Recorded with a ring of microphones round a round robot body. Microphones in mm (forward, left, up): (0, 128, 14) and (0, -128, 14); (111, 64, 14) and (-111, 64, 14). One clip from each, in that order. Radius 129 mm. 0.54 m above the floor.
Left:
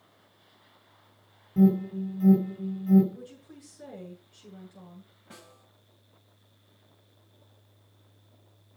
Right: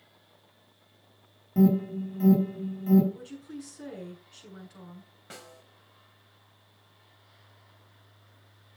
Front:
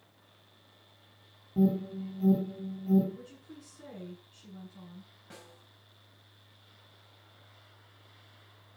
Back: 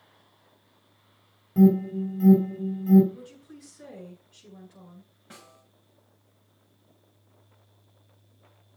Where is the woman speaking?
95° right, 7 m.